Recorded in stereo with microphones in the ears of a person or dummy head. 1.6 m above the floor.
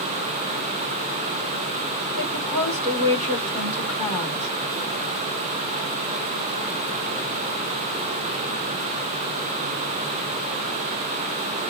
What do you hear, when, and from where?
2.2 s a woman speaking: 35° right (ahead or behind), 2 m